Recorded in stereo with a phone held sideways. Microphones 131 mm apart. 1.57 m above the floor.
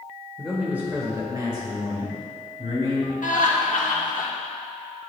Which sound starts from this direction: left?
Laughter, at 3.2 s.